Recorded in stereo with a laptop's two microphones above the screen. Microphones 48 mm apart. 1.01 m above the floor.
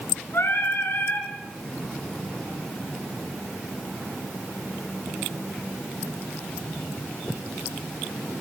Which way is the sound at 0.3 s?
55° left (ahead or behind).